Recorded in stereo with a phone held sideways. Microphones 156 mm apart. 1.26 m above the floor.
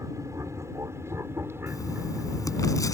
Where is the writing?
20° left (ahead or behind).